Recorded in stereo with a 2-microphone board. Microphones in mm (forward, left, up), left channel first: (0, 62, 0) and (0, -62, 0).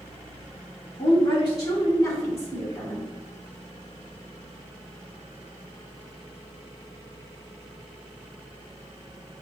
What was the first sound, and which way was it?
A woman speaking, 40° left (ahead or behind).